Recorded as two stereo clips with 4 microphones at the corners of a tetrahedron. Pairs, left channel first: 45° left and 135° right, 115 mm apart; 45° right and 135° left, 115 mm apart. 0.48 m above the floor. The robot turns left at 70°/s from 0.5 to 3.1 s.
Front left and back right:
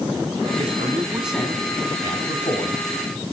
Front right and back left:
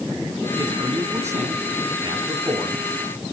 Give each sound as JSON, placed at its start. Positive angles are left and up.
{"t": 0.6, "sound": "a man speaking", "azimuth_deg": -170, "distance_m": 4.0}